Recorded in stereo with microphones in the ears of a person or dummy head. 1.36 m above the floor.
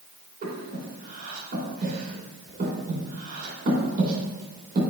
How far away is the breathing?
About 2.5 m.